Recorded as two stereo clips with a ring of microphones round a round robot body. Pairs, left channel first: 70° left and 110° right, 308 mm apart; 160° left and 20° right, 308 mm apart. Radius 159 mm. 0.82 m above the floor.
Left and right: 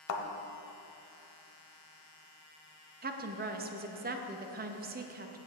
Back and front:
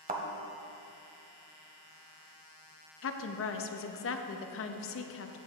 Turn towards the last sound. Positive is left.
turn(degrees=-165)